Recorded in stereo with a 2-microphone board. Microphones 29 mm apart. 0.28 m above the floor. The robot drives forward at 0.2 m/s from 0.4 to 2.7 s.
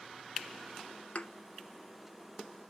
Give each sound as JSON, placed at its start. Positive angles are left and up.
{"t": 1.1, "sound": "a thud", "side_deg": 50, "distance_m": 1.2}